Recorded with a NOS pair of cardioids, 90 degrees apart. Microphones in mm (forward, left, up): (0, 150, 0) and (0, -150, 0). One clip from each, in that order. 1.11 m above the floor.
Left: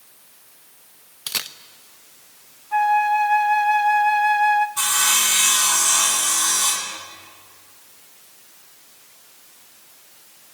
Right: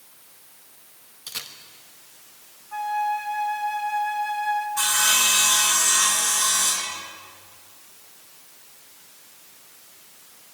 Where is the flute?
40° left, 1.5 m.